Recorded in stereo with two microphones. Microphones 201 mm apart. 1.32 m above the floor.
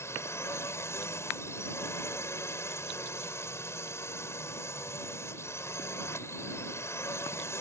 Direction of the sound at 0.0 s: 10° left (ahead or behind).